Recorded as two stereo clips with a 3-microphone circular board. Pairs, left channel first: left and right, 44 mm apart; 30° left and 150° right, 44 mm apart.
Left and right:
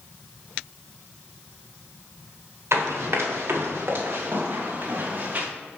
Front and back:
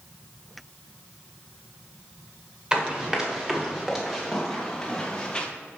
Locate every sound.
2.7 s running footsteps: 80° right, 3 m; by 5.5 s 45° right, 2.5 m